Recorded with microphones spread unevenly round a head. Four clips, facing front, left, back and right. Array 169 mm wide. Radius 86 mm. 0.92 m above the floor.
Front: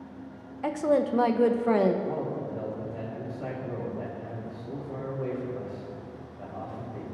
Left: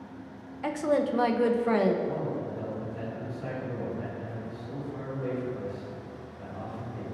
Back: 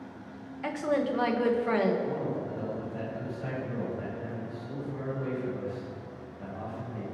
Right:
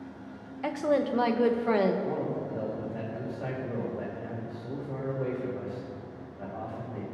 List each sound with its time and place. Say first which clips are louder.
0.6 s a woman speaking: even, front 4 dB; 15° right, 0.6 m
2.0 s a man speaking: even, front 1 dB; 65° right, 3 m